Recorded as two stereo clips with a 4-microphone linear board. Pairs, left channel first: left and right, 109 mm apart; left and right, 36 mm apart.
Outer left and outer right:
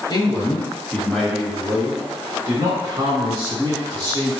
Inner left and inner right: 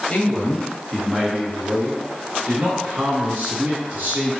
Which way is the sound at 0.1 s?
40° left (ahead or behind).